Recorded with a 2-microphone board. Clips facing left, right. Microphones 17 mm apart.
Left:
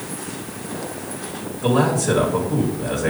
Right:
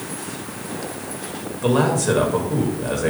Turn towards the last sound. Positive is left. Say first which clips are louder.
# even
turn(degrees=-30)  # may be behind; listen again after turning